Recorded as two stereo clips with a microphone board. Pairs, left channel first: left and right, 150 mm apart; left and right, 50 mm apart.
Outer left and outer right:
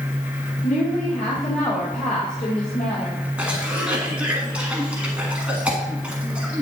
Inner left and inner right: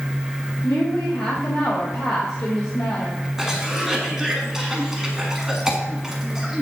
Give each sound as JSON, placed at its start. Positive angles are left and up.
{"t": 0.6, "sound": "a woman speaking", "side_deg": 65, "distance_m": 3.0}
{"t": 3.4, "sound": "a cough", "side_deg": -10, "distance_m": 1.3}